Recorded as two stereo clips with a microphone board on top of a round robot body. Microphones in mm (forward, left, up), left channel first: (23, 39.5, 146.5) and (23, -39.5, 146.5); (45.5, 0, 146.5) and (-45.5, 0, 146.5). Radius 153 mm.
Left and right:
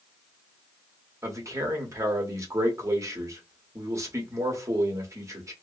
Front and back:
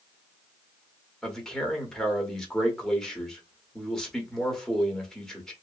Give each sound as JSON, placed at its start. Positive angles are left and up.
{"t": 1.2, "sound": "a man speaking", "azimuth_deg": -80, "distance_m": 1.5}